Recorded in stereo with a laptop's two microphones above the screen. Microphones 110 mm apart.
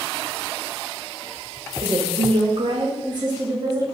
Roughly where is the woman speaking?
Right.